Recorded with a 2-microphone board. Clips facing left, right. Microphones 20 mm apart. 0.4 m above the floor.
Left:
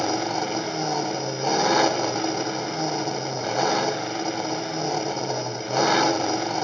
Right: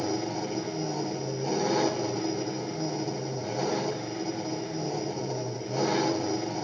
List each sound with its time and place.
0.0 s an engine running: 60° left (ahead or behind), 1.1 m